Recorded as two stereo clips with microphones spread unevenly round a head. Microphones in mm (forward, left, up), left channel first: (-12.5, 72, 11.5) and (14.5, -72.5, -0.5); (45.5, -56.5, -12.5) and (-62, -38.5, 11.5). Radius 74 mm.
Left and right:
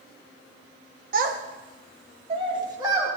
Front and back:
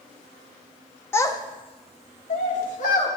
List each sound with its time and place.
1.1 s a child speaking: 85° right, 0.8 m; by 3.1 s 10° right, 1.8 m